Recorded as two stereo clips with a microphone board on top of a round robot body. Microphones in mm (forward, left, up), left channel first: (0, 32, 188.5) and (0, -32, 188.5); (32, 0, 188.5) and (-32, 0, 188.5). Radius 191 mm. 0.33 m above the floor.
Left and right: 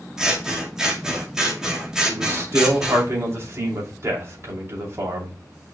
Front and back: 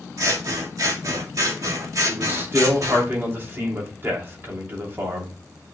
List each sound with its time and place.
0.2 s scissors: 170° right, 2.5 m
2.1 s a man speaking: 130° right, 2.5 m